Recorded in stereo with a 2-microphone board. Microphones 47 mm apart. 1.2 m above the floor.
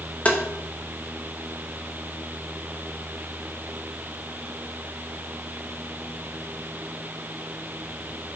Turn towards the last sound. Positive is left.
turn(degrees=30)  # may be behind; listen again after turning